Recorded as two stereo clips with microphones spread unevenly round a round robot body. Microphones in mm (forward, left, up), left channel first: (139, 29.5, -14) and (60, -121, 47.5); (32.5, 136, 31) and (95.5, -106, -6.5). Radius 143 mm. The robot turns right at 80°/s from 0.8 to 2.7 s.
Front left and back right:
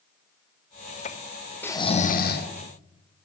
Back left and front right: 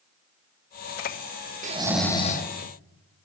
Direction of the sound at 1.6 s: 15° right.